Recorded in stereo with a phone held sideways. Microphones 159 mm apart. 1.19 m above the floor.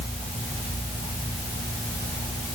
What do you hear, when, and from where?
Only background noise.